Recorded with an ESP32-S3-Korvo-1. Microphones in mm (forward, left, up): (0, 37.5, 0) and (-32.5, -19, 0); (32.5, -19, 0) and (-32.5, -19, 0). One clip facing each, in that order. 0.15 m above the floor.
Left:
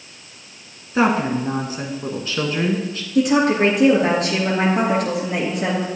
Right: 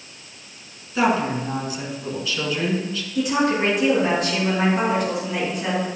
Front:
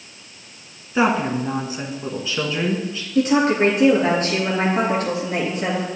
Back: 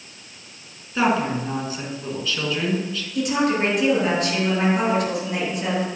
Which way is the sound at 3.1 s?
50° left.